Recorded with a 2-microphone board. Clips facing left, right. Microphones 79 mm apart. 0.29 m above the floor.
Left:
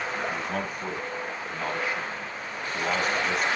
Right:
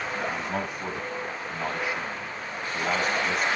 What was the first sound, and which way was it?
A man speaking, 10° right (ahead or behind).